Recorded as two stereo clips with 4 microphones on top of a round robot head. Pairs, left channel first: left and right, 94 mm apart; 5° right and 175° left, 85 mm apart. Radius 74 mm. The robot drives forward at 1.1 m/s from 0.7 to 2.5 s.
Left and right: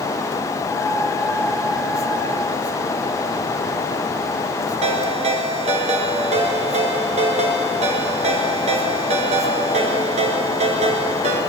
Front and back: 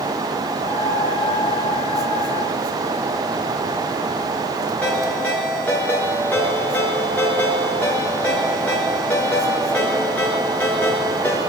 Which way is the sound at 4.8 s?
85° right.